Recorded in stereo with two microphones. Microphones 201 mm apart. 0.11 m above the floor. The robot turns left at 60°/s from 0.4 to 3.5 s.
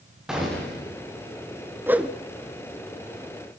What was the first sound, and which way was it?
A gunshot, 175° right.